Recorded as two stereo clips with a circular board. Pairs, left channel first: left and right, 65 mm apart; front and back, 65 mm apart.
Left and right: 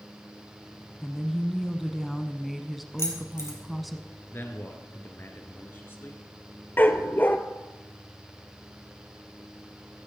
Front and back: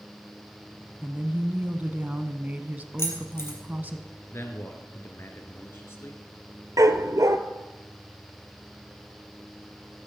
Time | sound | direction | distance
1.0 | a woman speaking | straight behind | 1.1 m
3.0 | keys jangling | 45° left | 3 m
4.3 | a man speaking | 40° left | 2 m
6.8 | a dog barking | 150° left | 0.8 m